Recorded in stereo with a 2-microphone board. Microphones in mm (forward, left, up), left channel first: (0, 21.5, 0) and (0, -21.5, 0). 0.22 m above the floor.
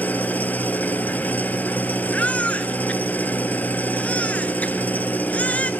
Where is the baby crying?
30° left (ahead or behind), 1.4 m.